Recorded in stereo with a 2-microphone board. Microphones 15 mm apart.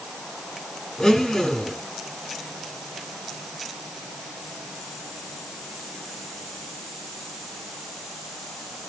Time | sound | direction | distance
1.0 | a blender | 35° left (ahead or behind) | 10 m